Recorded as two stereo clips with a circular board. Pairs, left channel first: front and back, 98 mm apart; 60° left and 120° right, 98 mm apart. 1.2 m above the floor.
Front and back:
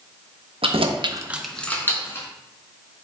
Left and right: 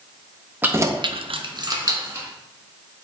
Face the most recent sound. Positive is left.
turn(degrees=-60)